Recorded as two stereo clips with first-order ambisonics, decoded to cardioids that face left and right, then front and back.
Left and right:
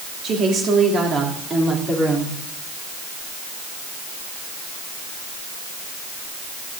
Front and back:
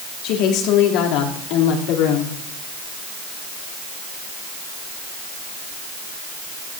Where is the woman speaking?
30° right, 3 m; by 2.4 s 10° right, 3.5 m.